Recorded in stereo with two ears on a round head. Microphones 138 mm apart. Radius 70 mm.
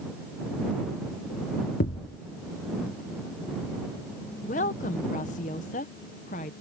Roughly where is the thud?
Left.